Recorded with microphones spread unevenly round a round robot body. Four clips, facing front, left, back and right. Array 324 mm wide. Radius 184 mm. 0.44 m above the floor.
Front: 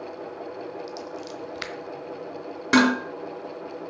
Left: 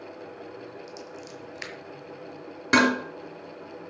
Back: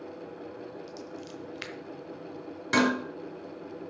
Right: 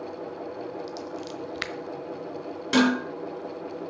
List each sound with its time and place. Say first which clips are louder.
0.9 s scissors: right 6 dB, front 6 dB; 45° right, 1.2 m
2.7 s dishes clattering: even, front 6 dB; 35° left, 4.5 m